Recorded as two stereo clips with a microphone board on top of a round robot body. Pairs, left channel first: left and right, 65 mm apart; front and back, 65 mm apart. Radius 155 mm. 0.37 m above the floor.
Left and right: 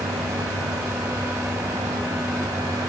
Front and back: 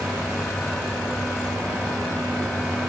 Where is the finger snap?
No finger snap in this recording.